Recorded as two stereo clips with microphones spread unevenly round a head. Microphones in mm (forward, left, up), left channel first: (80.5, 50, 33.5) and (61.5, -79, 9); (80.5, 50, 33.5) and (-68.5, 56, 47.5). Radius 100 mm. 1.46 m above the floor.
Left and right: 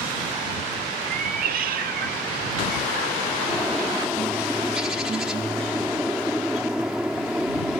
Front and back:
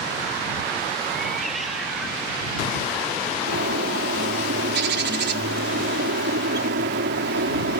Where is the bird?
175° left.